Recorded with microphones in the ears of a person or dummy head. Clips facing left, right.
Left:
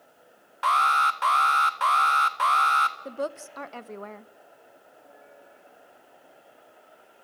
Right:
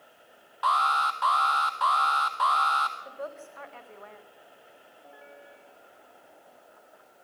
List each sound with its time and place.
0.6 s an alarm: 35° left (ahead or behind), 1.6 m
3.0 s a woman speaking: 60° left (ahead or behind), 1.0 m